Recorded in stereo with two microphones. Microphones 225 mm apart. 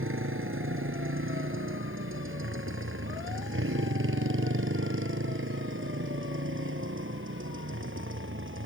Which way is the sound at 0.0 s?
65° right (ahead or behind).